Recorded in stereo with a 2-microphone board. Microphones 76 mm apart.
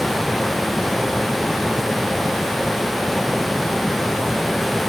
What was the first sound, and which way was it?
Only background noise.